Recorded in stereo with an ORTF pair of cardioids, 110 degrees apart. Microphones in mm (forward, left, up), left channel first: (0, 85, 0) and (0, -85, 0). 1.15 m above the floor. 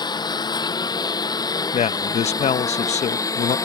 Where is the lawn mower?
25° left; by 3.7 s 20° left.